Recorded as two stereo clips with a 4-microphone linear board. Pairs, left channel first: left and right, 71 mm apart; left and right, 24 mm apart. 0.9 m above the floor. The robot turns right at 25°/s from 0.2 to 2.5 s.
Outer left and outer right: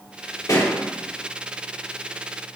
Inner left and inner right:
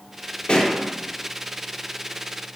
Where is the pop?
50° left (ahead or behind), 2.5 m; by 0.8 s 45° left (ahead or behind), 2.5 m.